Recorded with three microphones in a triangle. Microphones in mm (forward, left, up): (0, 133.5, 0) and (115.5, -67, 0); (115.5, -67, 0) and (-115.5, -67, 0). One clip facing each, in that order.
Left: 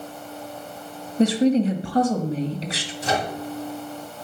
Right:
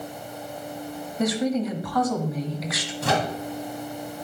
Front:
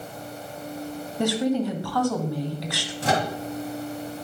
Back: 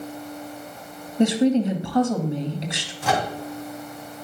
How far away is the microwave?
About 2.5 m.